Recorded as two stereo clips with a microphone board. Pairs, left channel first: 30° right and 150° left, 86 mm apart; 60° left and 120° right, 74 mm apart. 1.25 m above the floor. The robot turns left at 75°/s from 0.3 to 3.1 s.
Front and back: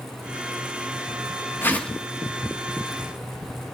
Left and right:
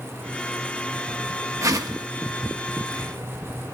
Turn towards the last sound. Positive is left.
turn(degrees=160)